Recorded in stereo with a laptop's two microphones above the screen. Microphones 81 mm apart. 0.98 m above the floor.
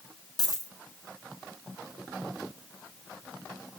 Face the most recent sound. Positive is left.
turn(degrees=50)  # may be behind; listen again after turning